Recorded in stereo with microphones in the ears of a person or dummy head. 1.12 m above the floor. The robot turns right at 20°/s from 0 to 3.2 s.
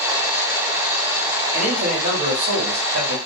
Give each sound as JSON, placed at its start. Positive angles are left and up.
{"t": 1.5, "sound": "a man speaking", "azimuth_deg": -140, "distance_m": 1.2}